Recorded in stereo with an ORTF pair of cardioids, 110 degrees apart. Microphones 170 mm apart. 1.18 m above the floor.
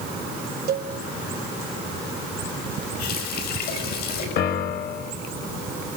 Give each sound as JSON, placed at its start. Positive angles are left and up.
{"t": 0.7, "sound": "a cowbell", "azimuth_deg": -65, "distance_m": 1.5}
{"t": 3.0, "sound": "a running tap", "azimuth_deg": 70, "distance_m": 5.5}
{"t": 4.4, "sound": "a piano", "azimuth_deg": 65, "distance_m": 1.2}